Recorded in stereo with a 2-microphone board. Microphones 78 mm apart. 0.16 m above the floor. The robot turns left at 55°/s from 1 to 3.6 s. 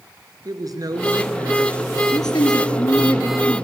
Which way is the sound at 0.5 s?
100° right.